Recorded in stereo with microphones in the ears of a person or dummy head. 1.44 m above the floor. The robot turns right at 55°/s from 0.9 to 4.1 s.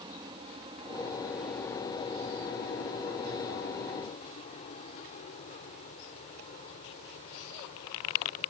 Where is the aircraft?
25° right (ahead or behind); by 8.5 s 40° left (ahead or behind).